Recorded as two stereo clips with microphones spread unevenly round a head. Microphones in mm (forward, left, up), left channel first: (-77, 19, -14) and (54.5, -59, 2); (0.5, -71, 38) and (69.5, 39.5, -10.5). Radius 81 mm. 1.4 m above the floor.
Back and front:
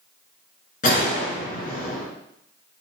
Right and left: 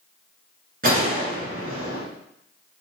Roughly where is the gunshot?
Left.